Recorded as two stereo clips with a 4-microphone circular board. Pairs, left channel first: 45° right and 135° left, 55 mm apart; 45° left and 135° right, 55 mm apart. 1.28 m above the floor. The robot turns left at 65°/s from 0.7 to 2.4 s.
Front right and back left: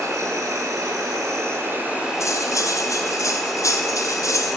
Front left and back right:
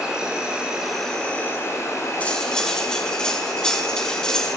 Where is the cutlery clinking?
20° right, 2.5 m; by 4.6 s 30° right, 2.5 m.